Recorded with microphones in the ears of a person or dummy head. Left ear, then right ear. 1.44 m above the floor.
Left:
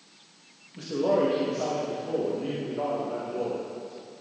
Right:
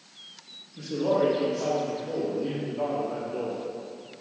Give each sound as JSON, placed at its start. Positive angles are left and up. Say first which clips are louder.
{"t": 0.8, "sound": "a man speaking", "louder": "even", "side_deg": 75, "distance_m": 1.9}